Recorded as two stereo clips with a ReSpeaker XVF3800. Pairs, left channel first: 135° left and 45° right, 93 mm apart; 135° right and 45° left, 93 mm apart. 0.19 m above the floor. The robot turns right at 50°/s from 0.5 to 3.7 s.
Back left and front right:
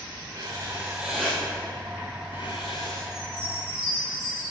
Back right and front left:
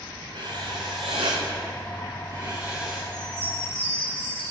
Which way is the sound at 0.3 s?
10° left.